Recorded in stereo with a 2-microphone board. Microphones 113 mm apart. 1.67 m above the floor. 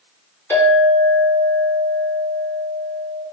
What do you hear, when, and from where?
0.5 s a clink: 15° left (ahead or behind), 1.4 m